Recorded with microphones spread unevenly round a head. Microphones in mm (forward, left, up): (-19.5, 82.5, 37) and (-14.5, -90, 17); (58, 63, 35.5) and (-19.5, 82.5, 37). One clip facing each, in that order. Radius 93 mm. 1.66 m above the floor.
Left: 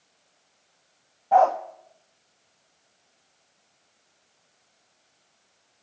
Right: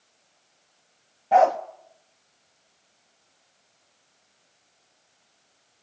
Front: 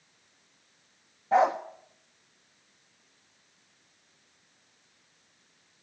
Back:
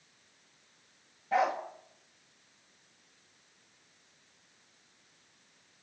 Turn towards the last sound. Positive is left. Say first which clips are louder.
# right 1 dB, front 6 dB
turn(degrees=-35)